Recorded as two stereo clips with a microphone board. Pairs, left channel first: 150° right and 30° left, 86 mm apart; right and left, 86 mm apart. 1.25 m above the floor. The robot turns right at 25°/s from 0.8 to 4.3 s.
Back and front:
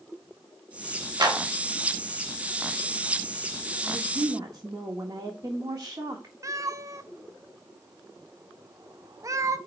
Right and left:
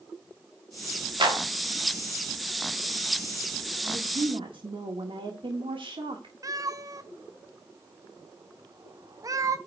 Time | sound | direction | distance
1.2 | a clap | 65° left | 2.5 m
3.8 | a woman speaking | 75° left | 1.5 m
6.4 | a cat meowing | 60° left | 0.7 m